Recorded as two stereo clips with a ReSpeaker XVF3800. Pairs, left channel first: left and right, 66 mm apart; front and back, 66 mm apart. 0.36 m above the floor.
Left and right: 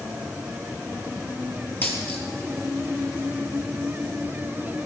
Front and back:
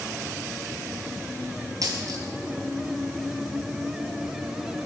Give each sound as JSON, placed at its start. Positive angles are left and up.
{"t": 1.8, "sound": "a dropped coin", "azimuth_deg": 150, "distance_m": 3.0}